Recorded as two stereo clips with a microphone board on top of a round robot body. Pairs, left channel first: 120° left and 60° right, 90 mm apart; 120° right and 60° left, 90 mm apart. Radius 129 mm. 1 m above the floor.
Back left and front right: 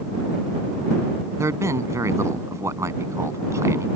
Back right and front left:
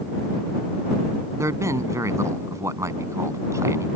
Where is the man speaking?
Straight ahead.